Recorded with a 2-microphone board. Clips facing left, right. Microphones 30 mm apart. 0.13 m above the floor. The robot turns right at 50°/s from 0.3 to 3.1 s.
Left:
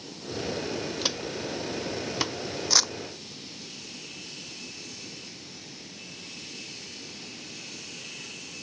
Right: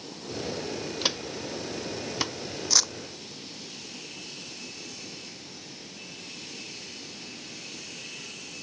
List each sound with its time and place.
1.0 s footsteps: 10° right (ahead or behind); by 2.4 s 10° left (ahead or behind)
2.7 s crumpling: 15° left (ahead or behind); by 2.9 s 5° left (ahead or behind)